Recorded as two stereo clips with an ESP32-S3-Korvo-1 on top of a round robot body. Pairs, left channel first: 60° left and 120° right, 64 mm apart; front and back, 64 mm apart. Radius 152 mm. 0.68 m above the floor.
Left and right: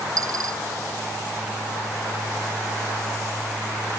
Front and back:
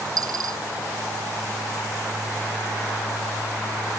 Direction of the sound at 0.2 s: 155° right.